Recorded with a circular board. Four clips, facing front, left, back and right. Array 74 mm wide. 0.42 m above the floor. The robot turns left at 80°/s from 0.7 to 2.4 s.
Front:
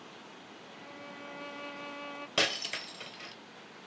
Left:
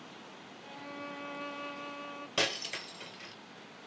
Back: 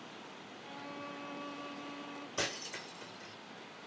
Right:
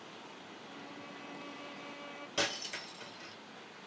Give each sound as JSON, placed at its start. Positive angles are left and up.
{"t": 0.6, "sound": "a violin", "azimuth_deg": 125, "distance_m": 0.8}
{"t": 2.4, "sound": "breaking glass", "azimuth_deg": 20, "distance_m": 0.9}